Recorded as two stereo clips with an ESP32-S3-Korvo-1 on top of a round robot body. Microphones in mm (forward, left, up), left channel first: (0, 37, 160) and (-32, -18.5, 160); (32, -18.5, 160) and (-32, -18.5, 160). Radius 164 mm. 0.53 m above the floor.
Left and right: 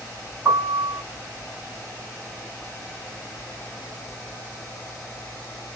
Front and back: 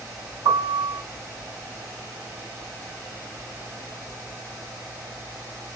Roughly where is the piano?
Behind.